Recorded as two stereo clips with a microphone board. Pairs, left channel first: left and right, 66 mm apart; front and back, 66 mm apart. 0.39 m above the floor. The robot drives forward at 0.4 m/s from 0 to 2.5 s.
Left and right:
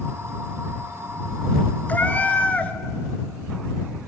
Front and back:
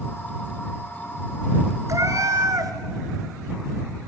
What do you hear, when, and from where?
1.9 s a cat meowing: 150° left, 1.3 m; by 2.7 s 155° left, 1.5 m